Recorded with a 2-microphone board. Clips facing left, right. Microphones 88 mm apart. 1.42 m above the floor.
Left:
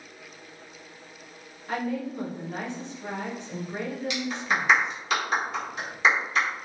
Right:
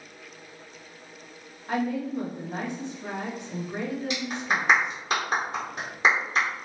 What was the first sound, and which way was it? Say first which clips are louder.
A woman speaking: right 2 dB; 15° right (ahead or behind).